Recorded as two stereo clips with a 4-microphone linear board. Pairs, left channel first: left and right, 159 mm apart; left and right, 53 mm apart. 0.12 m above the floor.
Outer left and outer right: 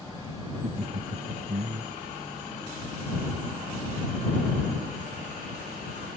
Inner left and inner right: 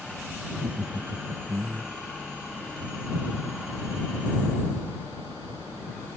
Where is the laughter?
80° right; by 1.9 s 75° right (ahead or behind).